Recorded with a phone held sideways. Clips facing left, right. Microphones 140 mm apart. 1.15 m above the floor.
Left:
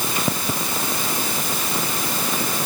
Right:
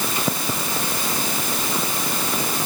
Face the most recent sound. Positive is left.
No sound to turn to.